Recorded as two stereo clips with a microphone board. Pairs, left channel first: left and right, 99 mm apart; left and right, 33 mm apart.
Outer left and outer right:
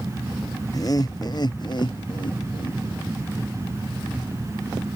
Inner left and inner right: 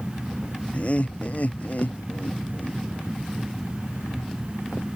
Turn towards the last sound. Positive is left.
turn(degrees=65)  # may be behind; listen again after turning